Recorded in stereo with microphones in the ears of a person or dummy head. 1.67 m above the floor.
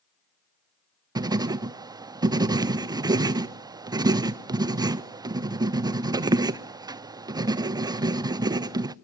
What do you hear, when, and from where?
1.1 s writing: 20° right (ahead or behind), 0.5 m